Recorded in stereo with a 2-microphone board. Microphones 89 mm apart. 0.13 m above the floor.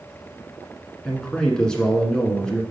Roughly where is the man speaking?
Centre.